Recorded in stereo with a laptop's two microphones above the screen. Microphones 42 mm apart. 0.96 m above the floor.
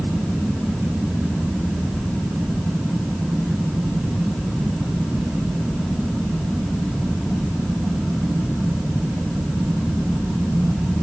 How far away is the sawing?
I don't hear sawing.